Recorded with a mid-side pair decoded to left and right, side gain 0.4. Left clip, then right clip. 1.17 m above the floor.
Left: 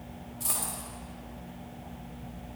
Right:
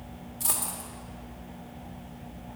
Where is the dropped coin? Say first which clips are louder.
Right 2 dB; 60° right, 1.9 m.